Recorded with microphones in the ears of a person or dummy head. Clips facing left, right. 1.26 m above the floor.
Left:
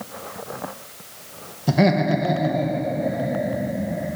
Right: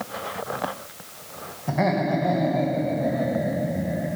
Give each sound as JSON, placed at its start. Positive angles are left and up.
{"t": 1.7, "sound": "laughter", "side_deg": 55, "distance_m": 0.8}